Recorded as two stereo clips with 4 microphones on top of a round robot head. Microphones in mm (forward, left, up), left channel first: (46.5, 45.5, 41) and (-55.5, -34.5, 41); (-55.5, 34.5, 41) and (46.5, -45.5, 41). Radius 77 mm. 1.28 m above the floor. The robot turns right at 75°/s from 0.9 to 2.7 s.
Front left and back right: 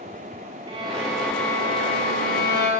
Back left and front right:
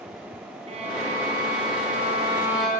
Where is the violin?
80° right, 9 m; by 2.7 s 55° left, 9 m.